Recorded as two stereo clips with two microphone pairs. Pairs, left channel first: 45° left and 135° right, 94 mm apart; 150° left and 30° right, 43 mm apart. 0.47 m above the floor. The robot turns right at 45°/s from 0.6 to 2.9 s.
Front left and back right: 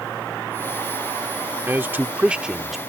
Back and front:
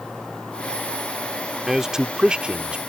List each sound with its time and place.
1.7 s a man speaking: 100° right; by 2.8 s 50° right